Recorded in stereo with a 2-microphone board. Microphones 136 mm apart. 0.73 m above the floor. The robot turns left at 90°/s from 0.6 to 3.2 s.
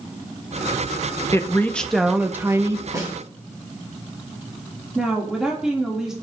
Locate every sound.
1.3 s a woman speaking: 20° left (ahead or behind), 0.9 m; by 2.8 s 25° right (ahead or behind), 0.9 m
2.9 s a snare drum: 25° right (ahead or behind), 4.5 m; by 3.1 s 10° right (ahead or behind), 4.5 m
5.0 s a woman speaking: 5° right (ahead or behind), 2 m